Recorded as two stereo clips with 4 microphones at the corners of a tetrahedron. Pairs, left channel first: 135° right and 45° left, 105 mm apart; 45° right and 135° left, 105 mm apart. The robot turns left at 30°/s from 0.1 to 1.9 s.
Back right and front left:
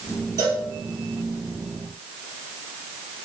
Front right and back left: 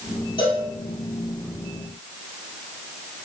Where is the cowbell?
5° right, 3 m; by 0.7 s 10° right, 3 m.